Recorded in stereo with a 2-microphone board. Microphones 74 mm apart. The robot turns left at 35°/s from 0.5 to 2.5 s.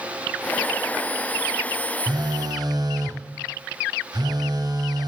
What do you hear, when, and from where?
2.1 s a phone buzzing: 65° right (ahead or behind), 0.9 m; by 5.1 s 60° right (ahead or behind), 0.9 m